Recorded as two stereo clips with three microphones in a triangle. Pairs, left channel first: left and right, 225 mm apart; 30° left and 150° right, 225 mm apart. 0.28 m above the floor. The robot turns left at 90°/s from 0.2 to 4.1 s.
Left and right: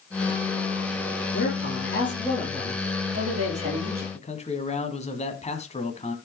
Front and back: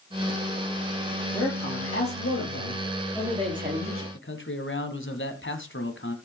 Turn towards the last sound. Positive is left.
turn(degrees=35)